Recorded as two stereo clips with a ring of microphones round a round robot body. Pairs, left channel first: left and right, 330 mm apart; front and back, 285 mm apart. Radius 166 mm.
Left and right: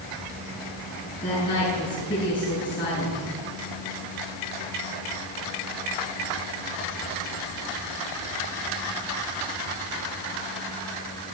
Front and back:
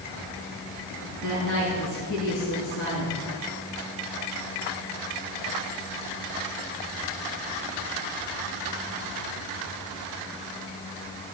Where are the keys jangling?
No keys jangling in this recording.